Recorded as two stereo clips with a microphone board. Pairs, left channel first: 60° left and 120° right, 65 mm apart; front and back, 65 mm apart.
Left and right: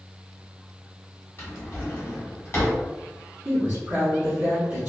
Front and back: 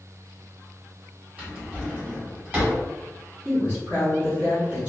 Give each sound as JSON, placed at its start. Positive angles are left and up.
{"t": 1.4, "sound": "a drawer", "azimuth_deg": 110, "distance_m": 1.5}
{"t": 3.5, "sound": "a woman speaking", "azimuth_deg": -160, "distance_m": 1.0}